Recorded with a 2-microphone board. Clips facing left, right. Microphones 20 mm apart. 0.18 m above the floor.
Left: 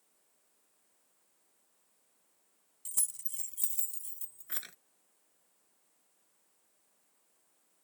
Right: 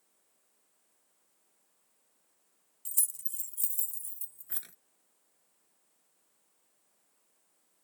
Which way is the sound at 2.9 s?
10° left (ahead or behind).